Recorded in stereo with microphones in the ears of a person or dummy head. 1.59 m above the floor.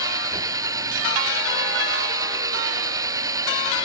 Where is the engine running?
20° right (ahead or behind).